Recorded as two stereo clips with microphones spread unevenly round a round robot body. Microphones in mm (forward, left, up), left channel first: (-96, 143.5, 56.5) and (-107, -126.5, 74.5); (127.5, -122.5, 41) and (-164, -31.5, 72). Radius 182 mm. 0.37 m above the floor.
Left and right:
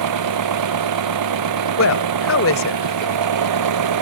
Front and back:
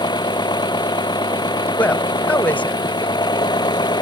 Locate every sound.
0.0 s an engine running: 95° right
1.8 s a woman speaking: 65° left